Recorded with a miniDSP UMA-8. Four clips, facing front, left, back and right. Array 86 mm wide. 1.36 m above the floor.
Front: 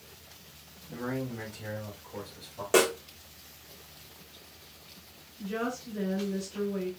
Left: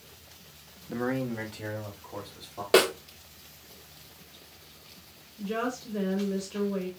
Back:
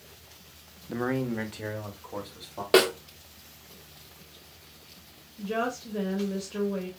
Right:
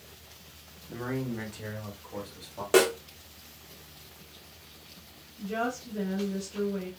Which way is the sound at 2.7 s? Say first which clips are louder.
Even, back 3 dB; 150° left.